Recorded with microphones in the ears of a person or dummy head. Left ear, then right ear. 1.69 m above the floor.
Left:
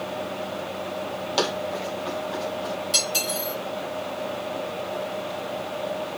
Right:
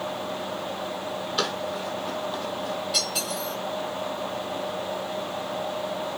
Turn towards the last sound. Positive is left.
turn(degrees=45)  # may be behind; listen again after turning